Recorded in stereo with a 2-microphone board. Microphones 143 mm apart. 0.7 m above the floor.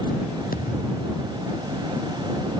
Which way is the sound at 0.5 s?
90° left.